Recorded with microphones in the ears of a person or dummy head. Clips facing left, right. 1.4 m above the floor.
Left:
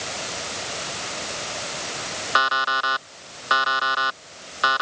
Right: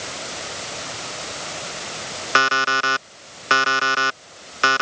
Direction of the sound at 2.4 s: 40° right (ahead or behind).